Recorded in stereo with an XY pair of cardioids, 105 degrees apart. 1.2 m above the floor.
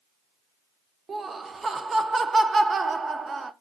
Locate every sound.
1.1 s laughter: 35° right, 0.6 m